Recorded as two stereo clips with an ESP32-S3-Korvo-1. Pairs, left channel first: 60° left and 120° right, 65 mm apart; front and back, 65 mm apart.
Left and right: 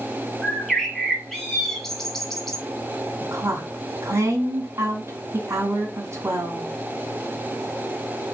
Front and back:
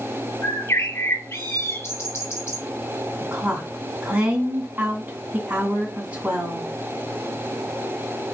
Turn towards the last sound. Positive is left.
turn(degrees=-120)